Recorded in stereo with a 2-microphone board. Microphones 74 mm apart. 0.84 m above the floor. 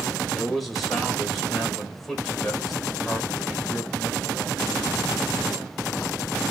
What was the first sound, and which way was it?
A man speaking, centre (ahead or behind).